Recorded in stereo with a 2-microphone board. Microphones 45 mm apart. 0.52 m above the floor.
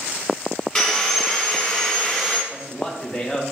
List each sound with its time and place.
0.8 s sawing: 10° left (ahead or behind), 2 m
2.5 s a man speaking: 10° left (ahead or behind), 1.1 m